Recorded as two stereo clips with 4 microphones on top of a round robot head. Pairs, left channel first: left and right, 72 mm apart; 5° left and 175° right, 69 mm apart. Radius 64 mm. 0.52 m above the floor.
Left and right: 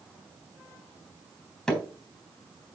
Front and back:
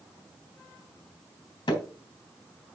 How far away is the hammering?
About 3.5 m.